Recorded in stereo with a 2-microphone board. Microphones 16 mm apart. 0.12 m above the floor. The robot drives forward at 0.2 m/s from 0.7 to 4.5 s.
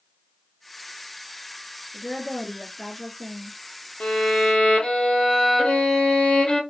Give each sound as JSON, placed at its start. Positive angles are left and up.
{"t": 1.9, "sound": "a woman speaking", "side_deg": -15, "distance_m": 1.8}
{"t": 4.0, "sound": "a violin", "side_deg": 55, "distance_m": 0.8}